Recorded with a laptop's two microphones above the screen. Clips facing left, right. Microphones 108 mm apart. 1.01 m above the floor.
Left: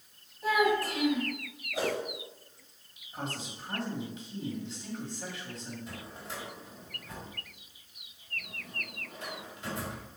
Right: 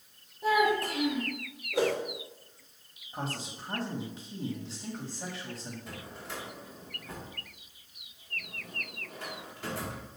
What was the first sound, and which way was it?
A child speaking, 25° right (ahead or behind).